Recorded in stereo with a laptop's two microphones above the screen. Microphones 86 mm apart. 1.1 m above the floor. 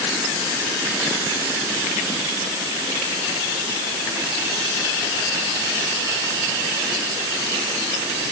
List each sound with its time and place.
Only background noise.